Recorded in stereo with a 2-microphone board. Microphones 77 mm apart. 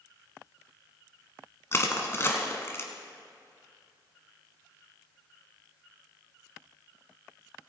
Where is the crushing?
35° left (ahead or behind), 1.3 m.